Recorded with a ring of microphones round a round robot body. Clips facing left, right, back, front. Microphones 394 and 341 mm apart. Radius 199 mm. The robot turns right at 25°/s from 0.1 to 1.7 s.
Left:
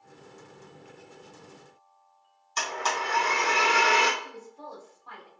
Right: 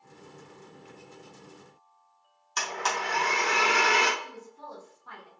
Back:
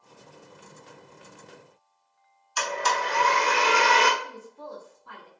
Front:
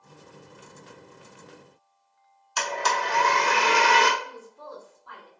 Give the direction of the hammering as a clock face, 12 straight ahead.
I don't hear hammering.